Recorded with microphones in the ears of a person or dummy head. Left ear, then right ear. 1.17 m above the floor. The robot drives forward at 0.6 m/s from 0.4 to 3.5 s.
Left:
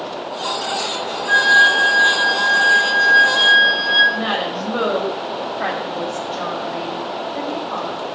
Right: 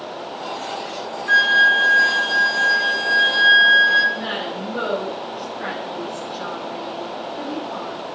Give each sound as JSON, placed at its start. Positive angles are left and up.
{"t": 1.3, "sound": "a flute", "side_deg": -25, "distance_m": 1.1}
{"t": 4.1, "sound": "a woman speaking", "side_deg": 30, "distance_m": 5.5}